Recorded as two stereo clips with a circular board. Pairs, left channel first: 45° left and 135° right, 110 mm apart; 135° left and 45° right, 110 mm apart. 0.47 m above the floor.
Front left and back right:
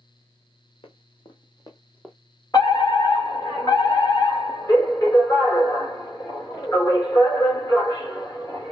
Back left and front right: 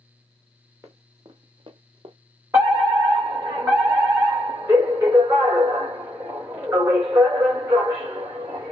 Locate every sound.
0.8 s running footsteps: 15° left, 1.5 m; by 2.1 s 40° right, 0.9 m
2.5 s a fire alarm: 5° left, 2.5 m